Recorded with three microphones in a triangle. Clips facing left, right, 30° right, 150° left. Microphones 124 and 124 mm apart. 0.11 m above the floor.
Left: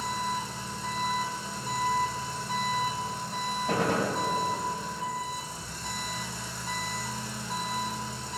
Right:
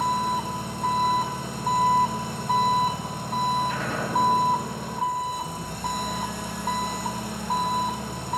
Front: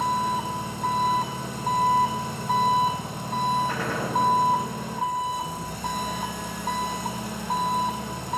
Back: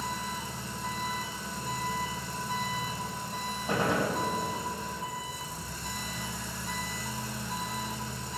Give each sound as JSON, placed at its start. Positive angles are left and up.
{"t": 0.0, "sound": "an engine running", "azimuth_deg": -55, "distance_m": 1.3}
{"t": 3.7, "sound": "a gunshot", "azimuth_deg": 80, "distance_m": 4.5}